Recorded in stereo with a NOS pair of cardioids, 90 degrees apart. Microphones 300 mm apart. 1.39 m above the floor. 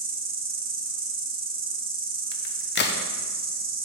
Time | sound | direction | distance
0.0 | an insect | 30° right | 0.9 m
2.3 | a crack | 35° left | 0.7 m